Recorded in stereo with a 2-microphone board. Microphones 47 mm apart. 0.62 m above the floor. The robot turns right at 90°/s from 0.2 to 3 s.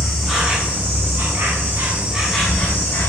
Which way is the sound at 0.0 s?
170° left.